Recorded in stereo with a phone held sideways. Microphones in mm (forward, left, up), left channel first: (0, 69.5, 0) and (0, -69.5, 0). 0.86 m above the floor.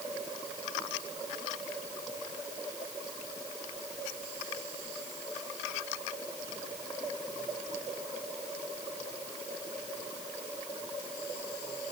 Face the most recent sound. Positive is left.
No sound to turn to.